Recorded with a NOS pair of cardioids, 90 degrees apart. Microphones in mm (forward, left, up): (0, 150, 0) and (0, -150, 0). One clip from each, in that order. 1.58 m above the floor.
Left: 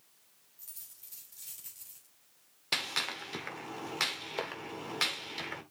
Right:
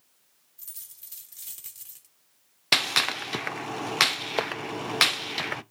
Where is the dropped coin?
55° right, 3 m.